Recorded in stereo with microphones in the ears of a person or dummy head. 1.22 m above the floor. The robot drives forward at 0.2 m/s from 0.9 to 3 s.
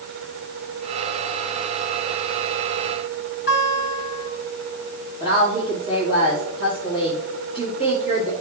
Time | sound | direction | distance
3.5 | a guitar | 55° left (ahead or behind) | 3.5 m
5.2 | a woman speaking | 5° right (ahead or behind) | 2.5 m